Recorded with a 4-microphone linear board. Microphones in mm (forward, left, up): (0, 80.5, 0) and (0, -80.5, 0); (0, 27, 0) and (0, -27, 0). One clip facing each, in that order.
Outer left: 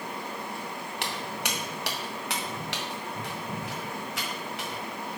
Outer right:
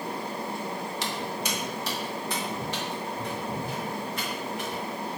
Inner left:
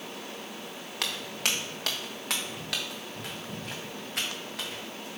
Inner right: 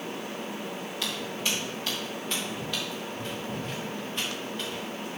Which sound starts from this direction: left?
Footsteps, at 1.0 s.